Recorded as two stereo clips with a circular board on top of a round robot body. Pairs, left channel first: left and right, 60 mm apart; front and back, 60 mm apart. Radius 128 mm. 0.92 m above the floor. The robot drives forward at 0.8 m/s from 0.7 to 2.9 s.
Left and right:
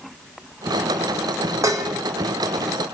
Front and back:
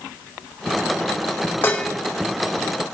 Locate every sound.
1.6 s dishes clattering: 55° right, 0.6 m; by 1.9 s 80° right, 0.5 m